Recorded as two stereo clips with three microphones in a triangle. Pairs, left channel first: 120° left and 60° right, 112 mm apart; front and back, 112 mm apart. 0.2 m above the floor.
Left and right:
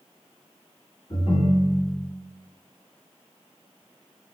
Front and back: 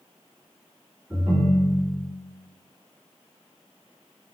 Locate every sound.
1.1 s a ringtone: 95° left, 1.3 m